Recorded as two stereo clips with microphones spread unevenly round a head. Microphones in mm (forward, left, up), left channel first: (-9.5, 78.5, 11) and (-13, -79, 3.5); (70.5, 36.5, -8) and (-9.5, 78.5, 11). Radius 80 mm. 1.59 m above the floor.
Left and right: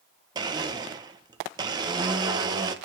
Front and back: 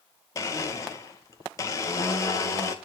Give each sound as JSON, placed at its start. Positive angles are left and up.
{"t": 0.3, "sound": "a blender", "azimuth_deg": -65, "distance_m": 0.7}